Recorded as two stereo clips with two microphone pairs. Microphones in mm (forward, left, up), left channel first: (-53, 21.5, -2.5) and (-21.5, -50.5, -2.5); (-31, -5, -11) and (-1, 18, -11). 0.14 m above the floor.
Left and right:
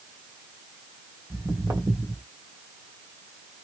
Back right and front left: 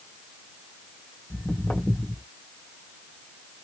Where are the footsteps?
115° right, 1.5 m.